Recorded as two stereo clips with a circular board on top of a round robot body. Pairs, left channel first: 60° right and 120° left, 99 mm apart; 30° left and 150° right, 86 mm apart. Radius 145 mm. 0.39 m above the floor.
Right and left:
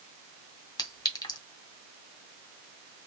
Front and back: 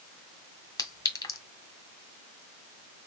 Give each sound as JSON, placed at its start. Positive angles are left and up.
{"t": 0.8, "sound": "a clink", "azimuth_deg": -15, "distance_m": 1.6}